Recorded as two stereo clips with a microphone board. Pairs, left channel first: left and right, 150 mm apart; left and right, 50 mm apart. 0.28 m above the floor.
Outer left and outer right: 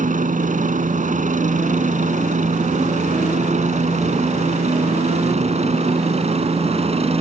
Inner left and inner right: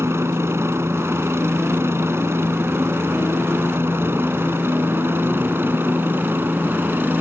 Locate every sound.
0.0 s a helicopter: 60° right (ahead or behind); by 7.2 s 45° right (ahead or behind)